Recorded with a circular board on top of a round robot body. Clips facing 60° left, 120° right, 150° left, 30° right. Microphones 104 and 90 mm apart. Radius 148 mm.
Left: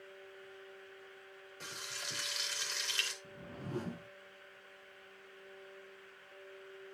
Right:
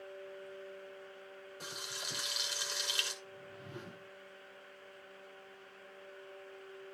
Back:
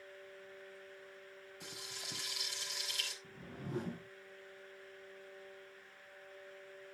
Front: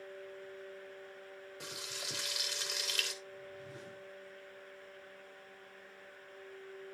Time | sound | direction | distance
1.6 | frying | 40° right | 4.5 m
3.2 | a whoosh | 110° left | 0.6 m